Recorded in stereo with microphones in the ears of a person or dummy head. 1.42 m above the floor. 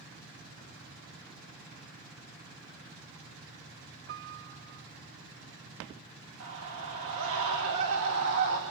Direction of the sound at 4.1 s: 45° right (ahead or behind).